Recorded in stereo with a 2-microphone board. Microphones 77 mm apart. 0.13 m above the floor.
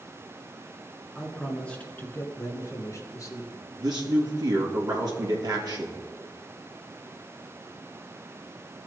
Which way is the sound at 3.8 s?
60° right (ahead or behind).